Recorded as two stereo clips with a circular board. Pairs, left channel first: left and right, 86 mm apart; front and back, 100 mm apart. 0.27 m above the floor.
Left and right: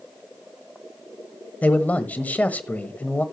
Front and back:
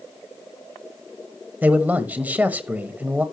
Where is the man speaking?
130° left, 1.1 m.